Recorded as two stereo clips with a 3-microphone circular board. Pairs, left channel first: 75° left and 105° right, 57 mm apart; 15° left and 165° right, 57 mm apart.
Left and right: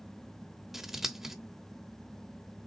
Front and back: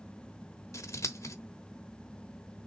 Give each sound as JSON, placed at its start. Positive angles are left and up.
{"t": 0.7, "sound": "scissors", "azimuth_deg": -20, "distance_m": 0.9}